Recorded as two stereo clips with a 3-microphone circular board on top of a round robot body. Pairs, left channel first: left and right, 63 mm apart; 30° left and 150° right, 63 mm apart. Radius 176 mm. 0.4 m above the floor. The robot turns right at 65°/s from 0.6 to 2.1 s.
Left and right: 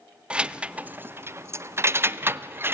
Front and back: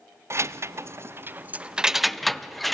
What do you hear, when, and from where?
0.3 s keys jangling: 155° right, 0.6 m; by 2.7 s 60° right, 0.6 m